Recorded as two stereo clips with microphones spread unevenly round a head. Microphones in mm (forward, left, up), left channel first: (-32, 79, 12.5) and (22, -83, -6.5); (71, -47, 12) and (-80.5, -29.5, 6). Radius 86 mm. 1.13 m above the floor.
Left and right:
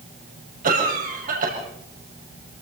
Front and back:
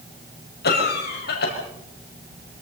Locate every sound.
0.6 s a cough: 25° right, 6.5 m